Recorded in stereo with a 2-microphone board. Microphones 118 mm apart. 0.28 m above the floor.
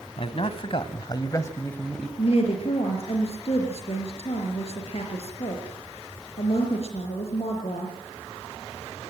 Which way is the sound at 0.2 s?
55° left (ahead or behind).